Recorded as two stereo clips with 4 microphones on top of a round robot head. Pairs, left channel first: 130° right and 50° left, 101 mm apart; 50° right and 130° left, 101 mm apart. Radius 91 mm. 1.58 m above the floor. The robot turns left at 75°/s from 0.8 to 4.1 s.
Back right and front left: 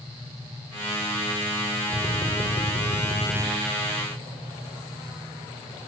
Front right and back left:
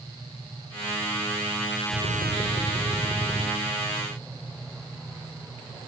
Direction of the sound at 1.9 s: 60° right.